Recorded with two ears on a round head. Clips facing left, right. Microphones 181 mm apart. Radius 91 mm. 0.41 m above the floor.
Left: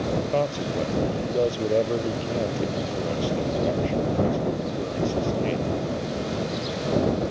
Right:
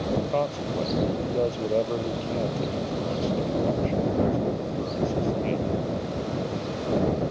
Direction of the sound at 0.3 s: 15° left (ahead or behind).